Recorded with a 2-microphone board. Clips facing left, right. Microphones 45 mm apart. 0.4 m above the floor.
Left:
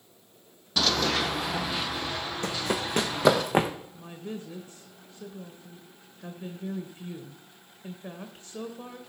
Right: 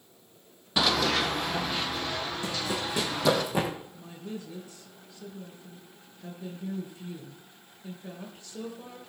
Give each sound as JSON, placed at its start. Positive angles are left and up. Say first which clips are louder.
{"t": 0.8, "sound": "running footsteps", "louder": "right 1 dB", "side_deg": -20, "distance_m": 0.6}
{"t": 2.4, "sound": "running footsteps", "louder": "left 5 dB", "side_deg": 65, "distance_m": 1.4}
{"t": 3.9, "sound": "a woman speaking", "louder": "left 1 dB", "side_deg": 40, "distance_m": 1.3}